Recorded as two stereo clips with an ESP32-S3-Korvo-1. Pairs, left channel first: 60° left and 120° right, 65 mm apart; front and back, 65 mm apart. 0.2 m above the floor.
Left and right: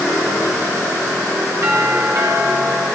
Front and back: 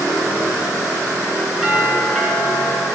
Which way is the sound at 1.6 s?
95° right.